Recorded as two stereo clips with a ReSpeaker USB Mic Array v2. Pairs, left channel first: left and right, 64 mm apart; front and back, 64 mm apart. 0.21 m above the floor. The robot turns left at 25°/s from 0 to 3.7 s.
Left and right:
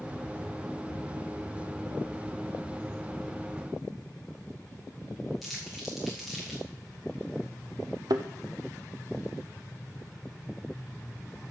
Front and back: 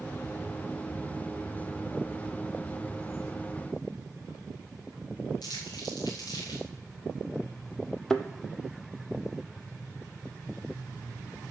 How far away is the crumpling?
About 3 m.